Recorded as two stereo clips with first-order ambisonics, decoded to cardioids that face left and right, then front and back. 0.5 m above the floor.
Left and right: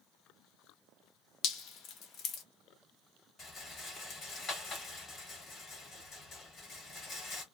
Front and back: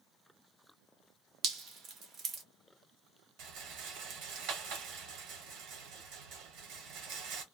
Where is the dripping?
130° left, 0.7 m.